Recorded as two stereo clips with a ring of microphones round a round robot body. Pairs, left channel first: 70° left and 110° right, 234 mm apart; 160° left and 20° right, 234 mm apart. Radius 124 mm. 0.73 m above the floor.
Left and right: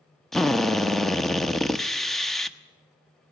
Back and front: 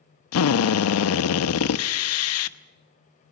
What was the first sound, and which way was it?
A drill, 155° left.